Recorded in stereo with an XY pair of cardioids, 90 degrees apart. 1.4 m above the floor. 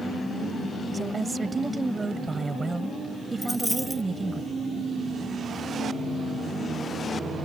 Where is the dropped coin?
5° left.